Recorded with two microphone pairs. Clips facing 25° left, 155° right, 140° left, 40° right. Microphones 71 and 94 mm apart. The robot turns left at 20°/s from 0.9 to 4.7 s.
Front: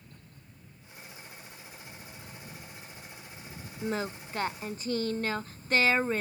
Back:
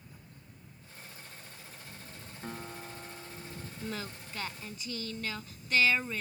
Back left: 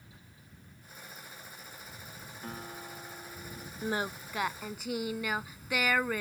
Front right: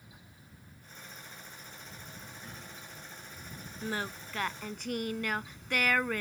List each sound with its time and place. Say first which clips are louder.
2.4 s a guitar: back 5 dB, back left 6 dB; 175° right; by 3.7 s 160° left
3.8 s singing: front 8 dB, back left 3 dB; 70° left; by 6.2 s 55° left